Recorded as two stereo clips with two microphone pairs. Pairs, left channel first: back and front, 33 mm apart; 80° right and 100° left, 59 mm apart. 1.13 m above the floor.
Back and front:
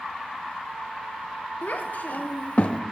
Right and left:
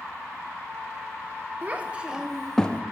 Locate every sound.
1.6 s a child speaking: 155° left, 1.1 m; by 2.8 s 145° right, 0.6 m